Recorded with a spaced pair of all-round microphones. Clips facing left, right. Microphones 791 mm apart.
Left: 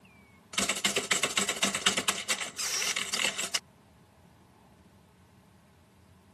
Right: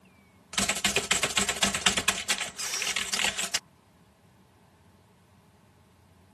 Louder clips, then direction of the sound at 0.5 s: Right 2 dB; 35° right (ahead or behind).